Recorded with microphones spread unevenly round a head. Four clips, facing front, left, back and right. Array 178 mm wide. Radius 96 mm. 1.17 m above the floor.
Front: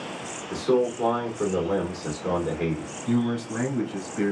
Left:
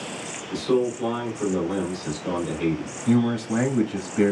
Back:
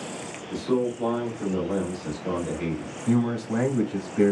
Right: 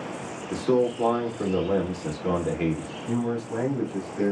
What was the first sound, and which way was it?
A man speaking, 55° right.